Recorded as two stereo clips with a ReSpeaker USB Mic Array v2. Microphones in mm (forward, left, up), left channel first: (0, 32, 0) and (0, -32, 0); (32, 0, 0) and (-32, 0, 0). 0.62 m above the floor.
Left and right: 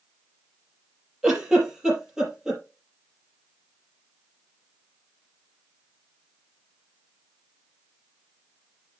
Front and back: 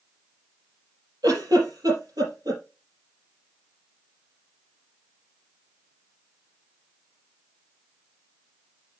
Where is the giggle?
170° right, 5.5 m.